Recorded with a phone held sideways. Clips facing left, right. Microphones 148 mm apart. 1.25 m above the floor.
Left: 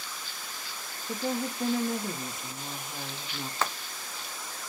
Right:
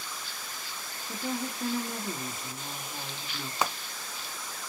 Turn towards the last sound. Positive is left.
turn(degrees=-15)  # may be behind; listen again after turning